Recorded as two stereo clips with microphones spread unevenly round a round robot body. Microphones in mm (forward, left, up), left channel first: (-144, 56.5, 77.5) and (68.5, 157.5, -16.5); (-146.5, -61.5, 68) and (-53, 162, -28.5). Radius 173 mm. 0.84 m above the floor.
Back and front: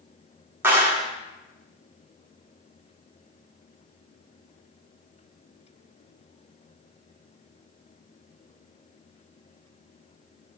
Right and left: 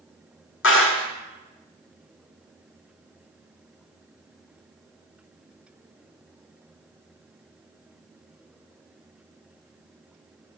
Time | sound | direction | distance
0.6 | a clap | 55° right | 1.1 m